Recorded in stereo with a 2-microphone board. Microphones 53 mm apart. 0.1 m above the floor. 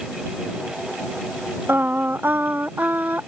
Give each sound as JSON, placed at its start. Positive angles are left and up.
{"t": 1.7, "sound": "singing", "side_deg": -40}